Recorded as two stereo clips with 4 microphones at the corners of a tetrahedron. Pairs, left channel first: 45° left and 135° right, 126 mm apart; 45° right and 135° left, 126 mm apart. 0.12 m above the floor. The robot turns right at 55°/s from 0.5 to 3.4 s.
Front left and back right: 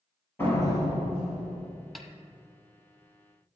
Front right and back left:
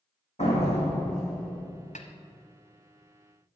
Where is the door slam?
25° right, 2 m; by 1.7 s 40° left, 2 m.